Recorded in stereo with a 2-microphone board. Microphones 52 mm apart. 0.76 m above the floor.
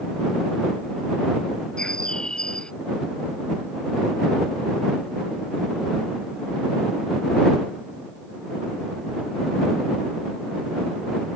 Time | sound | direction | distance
1.8 | a bird | 15° left (ahead or behind) | ?